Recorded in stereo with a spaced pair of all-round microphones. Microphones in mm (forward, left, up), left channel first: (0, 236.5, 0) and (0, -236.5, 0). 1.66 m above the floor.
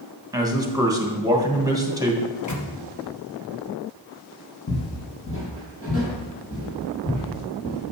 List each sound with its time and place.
0.3 s a man speaking: 10° right (ahead or behind), 1.3 m
2.2 s a microwave: 40° left (ahead or behind), 1.0 m
4.7 s footsteps: 20° left (ahead or behind), 2.5 m; by 7.8 s 30° left (ahead or behind), 4.5 m